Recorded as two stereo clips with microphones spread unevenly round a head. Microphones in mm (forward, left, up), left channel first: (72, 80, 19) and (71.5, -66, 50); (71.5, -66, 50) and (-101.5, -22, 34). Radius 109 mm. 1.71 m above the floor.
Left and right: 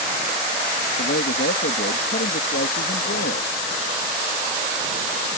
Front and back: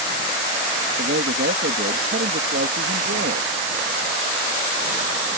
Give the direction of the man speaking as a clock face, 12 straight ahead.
8 o'clock.